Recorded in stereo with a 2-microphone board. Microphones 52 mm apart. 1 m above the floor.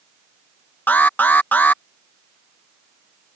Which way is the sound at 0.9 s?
40° left (ahead or behind).